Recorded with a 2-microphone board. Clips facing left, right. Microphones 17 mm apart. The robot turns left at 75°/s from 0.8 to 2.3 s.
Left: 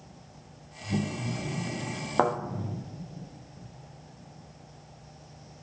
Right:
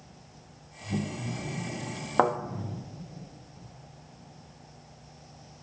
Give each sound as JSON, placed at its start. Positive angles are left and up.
{"t": 2.2, "sound": "a thud", "side_deg": -10, "distance_m": 1.0}